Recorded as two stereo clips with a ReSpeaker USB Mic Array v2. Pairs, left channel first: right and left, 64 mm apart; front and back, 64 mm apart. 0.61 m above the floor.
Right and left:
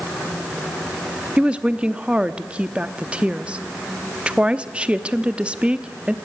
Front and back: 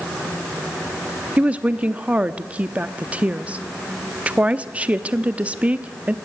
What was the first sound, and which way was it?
A woman speaking, 140° left.